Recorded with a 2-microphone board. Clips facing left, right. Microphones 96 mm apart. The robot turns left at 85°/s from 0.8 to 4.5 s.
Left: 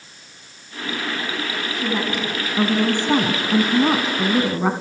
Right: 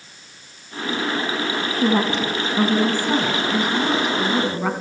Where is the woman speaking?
105° right, 1.7 m; by 4.7 s 20° left, 1.7 m.